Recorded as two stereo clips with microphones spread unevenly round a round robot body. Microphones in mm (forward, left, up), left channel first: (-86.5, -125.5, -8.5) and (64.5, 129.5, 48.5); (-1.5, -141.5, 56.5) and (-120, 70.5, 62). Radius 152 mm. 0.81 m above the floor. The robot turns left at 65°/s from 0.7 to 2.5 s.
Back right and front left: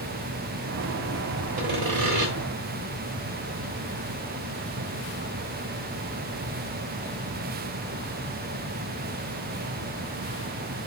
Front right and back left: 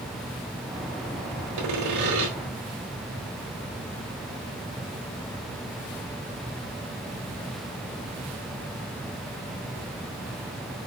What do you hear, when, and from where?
1.6 s sawing: 120° left, 1.4 m; by 2.3 s 75° left, 1.4 m